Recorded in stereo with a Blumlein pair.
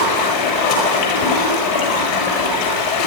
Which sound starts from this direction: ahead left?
Running water, at 0.0 s.